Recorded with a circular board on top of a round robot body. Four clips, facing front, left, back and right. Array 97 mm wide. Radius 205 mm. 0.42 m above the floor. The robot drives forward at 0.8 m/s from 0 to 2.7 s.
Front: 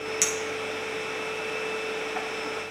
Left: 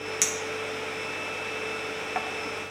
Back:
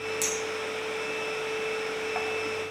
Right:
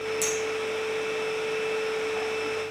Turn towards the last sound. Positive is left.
turn(degrees=120)